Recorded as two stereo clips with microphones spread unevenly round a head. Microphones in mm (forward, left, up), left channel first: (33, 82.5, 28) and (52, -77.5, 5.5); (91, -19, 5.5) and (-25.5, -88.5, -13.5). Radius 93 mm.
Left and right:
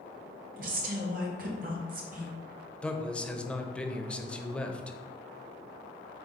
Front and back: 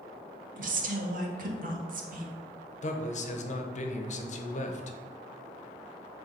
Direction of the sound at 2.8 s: 10° left.